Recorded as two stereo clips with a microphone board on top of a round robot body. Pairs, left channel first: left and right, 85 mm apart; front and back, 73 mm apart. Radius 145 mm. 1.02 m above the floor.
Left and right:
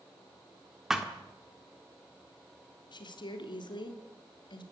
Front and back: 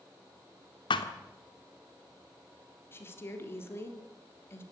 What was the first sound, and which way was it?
A thud, 5° right.